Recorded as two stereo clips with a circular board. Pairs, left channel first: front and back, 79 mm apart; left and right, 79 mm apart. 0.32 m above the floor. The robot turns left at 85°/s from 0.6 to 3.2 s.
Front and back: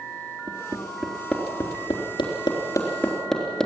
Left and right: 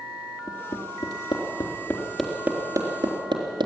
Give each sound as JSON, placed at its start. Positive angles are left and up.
{"t": 0.5, "sound": "hammering", "azimuth_deg": 135, "distance_m": 3.5}